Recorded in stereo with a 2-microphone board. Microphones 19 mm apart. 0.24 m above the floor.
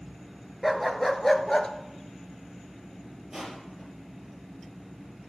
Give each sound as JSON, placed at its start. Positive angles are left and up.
{"t": 0.6, "sound": "a dog barking", "side_deg": 0, "distance_m": 1.3}
{"t": 3.3, "sound": "crushing", "side_deg": -30, "distance_m": 4.5}